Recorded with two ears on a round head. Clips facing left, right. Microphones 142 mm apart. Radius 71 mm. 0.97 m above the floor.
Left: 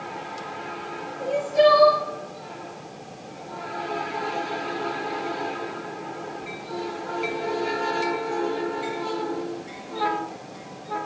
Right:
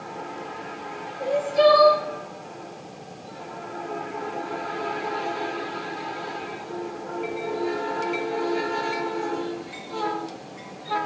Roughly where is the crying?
Centre.